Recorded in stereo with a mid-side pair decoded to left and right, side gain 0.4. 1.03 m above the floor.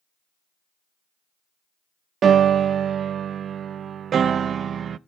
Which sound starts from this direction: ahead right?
A piano, at 2.2 s.